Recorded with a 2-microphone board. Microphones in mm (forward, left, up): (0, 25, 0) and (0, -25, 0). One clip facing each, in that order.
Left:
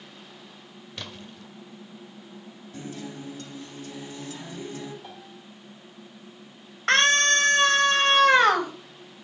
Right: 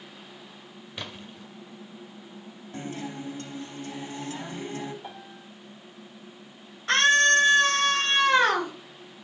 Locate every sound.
1.0 s a splash: 10° right (ahead or behind), 1.2 m
2.7 s a guitar: 35° right (ahead or behind), 3.5 m
5.0 s a piano: 15° right (ahead or behind), 1.7 m
6.9 s a scream: 70° left (ahead or behind), 3 m